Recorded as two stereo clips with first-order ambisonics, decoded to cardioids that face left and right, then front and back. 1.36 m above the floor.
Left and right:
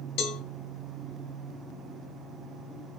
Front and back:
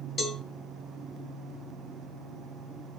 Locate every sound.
0.2 s a cowbell: 65° left, 2.5 m